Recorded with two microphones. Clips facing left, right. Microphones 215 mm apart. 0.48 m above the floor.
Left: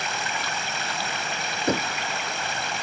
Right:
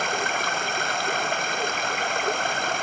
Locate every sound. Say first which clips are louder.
0.0 s running water: right 5 dB; 55° right (ahead or behind)
1.7 s knocking: left 6 dB; 75° left (ahead or behind)